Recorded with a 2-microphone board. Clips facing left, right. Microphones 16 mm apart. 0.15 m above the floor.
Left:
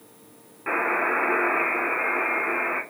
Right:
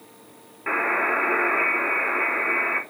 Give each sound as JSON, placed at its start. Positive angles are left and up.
{"t": 0.7, "sound": "a buzzer", "side_deg": -5, "distance_m": 1.4}